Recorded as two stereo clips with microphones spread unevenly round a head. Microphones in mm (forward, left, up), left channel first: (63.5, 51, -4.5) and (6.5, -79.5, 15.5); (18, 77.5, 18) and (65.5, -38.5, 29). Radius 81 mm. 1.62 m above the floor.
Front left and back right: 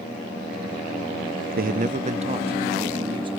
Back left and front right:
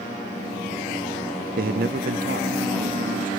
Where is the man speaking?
90° right, 0.5 m; by 3.3 s 55° right, 2 m.